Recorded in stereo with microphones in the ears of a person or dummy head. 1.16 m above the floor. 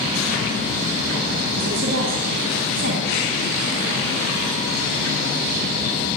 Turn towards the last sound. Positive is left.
turn(degrees=-70)  # may be behind; listen again after turning